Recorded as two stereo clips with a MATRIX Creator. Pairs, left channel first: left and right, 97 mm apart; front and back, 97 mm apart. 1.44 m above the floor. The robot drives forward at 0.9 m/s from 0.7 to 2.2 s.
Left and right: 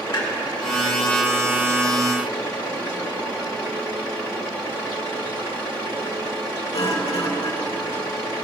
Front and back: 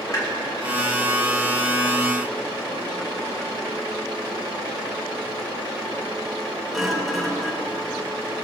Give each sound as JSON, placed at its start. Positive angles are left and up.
{"t": 0.1, "sound": "a clunk", "azimuth_deg": 55, "distance_m": 2.5}